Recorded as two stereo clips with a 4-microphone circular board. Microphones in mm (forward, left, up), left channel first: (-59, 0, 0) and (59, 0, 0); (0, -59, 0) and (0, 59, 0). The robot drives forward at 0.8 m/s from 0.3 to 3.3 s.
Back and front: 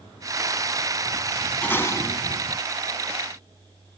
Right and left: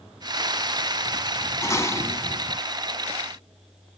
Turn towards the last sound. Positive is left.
turn(degrees=-165)